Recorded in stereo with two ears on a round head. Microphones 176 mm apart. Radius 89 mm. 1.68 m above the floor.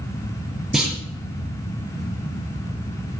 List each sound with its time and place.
0.7 s a clunk: centre (ahead or behind), 6.5 m